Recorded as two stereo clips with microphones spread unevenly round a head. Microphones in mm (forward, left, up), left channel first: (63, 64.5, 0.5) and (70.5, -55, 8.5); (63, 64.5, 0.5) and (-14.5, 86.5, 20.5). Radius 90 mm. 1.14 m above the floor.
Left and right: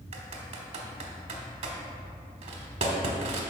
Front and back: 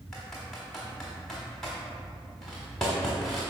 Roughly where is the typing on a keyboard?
Behind right.